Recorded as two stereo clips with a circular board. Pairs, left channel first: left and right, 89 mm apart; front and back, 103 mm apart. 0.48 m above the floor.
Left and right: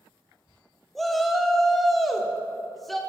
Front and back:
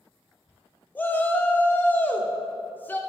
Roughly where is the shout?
Ahead.